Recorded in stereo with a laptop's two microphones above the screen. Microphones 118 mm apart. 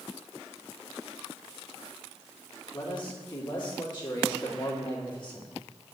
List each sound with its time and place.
2.7 s a man speaking: 40° left (ahead or behind), 2 m